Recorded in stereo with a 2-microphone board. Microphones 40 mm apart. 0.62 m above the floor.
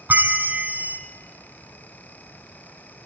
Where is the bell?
50° right (ahead or behind), 1.0 m.